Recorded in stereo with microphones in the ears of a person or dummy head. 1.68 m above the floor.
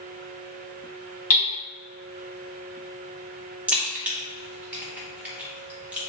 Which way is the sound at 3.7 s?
10° right (ahead or behind).